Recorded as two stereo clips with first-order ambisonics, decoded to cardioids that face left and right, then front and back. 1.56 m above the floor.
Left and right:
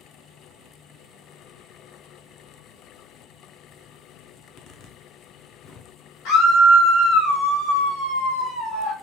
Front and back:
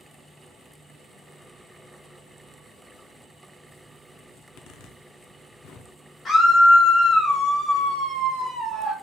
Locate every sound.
4.4 s a zipper: 45° left, 0.6 m
6.2 s a scream: 80° left, 2 m